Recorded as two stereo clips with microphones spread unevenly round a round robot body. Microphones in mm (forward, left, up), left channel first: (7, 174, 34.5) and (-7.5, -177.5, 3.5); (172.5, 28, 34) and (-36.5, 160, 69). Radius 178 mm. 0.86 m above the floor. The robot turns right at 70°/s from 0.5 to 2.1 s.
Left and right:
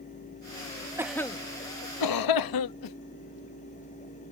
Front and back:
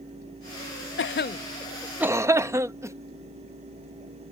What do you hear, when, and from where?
1.0 s a cough: 15° right; by 3.0 s 65° left